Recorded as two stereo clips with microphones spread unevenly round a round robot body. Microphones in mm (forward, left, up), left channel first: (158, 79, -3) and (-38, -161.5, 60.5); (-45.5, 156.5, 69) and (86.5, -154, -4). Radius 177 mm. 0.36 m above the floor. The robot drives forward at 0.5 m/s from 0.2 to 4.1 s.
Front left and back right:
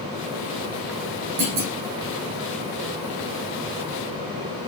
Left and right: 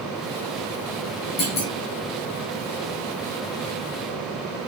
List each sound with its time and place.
1.4 s a clunk: straight behind, 6.5 m